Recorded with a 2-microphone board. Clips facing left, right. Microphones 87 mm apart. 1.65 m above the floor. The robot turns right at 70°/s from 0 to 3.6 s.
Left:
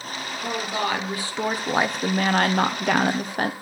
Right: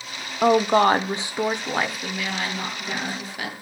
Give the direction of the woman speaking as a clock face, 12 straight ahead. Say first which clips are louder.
Right 11 dB; 3 o'clock.